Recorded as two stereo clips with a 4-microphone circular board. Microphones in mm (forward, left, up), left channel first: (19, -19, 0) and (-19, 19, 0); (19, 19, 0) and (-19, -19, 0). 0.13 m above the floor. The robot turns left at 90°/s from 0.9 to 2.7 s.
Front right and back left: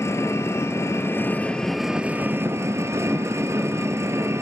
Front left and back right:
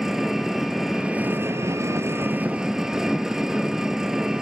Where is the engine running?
55° right, 0.8 m; by 4.4 s 145° left, 0.8 m.